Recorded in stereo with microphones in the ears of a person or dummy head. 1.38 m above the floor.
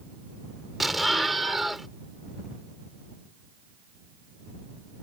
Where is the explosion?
10° left (ahead or behind).